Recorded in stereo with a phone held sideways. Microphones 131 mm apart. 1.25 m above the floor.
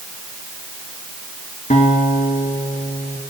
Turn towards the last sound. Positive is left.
turn(degrees=70)  # may be behind; listen again after turning